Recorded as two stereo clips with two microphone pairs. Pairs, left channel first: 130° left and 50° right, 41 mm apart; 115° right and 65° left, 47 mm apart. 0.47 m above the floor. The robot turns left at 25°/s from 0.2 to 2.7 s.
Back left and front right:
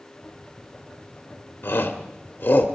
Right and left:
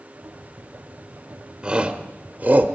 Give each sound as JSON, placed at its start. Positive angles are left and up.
{"t": 1.6, "sound": "a shout", "azimuth_deg": 125, "distance_m": 1.4}